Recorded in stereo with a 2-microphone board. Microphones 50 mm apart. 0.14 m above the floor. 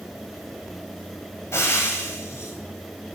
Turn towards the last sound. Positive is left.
turn(degrees=50)  # may be behind; listen again after turning